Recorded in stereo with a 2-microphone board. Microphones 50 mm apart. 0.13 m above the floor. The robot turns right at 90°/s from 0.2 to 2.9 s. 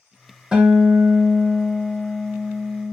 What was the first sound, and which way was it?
A guitar, 15° right.